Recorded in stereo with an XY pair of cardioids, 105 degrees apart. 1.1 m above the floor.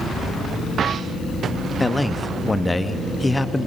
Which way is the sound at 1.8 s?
15° left.